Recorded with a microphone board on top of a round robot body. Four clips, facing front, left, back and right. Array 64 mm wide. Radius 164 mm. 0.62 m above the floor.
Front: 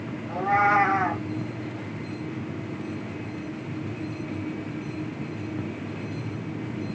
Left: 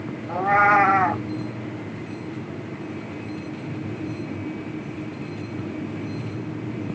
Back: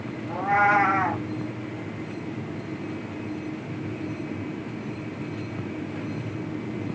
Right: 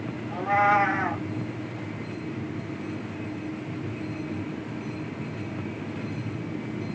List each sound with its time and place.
0.3 s a cat meowing: 95° left, 0.6 m